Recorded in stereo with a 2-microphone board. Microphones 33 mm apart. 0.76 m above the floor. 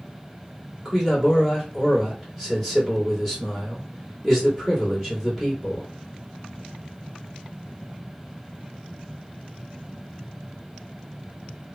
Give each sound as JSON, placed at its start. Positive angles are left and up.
{"t": 0.8, "sound": "a man speaking", "side_deg": 0, "distance_m": 2.0}